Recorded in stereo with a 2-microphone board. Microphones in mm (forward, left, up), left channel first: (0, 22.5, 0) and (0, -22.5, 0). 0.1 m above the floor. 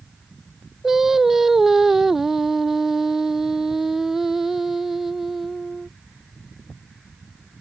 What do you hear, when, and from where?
0.8 s singing: 5° right (ahead or behind)